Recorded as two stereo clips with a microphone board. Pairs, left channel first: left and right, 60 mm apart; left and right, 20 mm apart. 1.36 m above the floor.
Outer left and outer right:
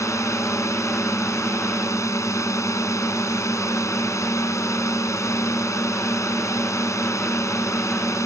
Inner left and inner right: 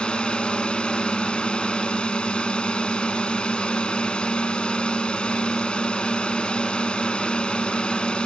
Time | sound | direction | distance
0.0 | a drone | 55° left (ahead or behind) | ?